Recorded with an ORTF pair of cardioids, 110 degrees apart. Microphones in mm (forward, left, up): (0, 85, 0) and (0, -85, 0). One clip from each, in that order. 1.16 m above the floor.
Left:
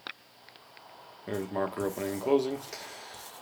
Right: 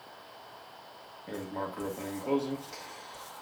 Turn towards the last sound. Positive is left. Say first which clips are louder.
# left 5 dB
turn(degrees=40)